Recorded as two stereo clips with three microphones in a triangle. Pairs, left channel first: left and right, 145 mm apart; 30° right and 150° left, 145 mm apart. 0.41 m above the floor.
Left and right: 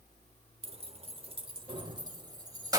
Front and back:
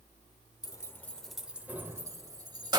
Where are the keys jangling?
80° right, 0.9 m; by 2.8 s 155° right, 1.6 m.